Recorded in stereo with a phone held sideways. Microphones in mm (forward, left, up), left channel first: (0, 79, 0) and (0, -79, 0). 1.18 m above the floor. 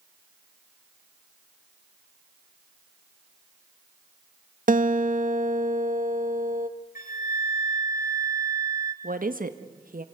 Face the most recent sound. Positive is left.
turn(degrees=-70)  # may be behind; listen again after turning